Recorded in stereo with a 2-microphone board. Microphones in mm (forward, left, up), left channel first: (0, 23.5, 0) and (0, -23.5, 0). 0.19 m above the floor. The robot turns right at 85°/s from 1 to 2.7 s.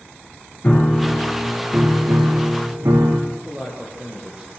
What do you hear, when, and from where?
0.6 s a piano: 150° left, 4 m; by 3.2 s 70° right, 4 m
3.3 s a man speaking: 20° right (ahead or behind), 7 m